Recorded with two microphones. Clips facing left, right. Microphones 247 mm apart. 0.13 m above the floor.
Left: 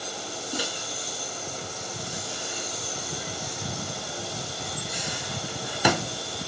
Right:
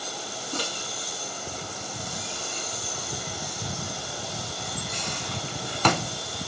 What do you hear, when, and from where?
0.5 s a microwave: 10° left (ahead or behind), 0.9 m